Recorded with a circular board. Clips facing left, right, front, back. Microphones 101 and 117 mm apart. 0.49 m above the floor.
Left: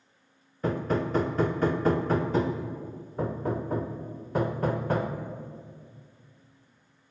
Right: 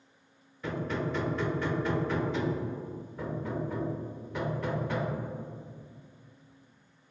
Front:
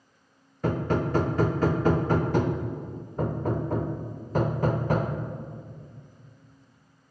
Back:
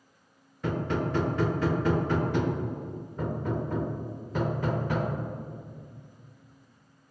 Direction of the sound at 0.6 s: 45° left.